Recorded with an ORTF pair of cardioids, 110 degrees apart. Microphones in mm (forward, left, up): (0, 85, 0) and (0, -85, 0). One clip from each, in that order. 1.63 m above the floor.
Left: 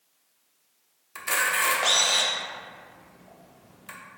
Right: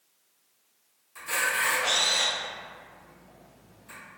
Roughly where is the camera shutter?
Ahead left.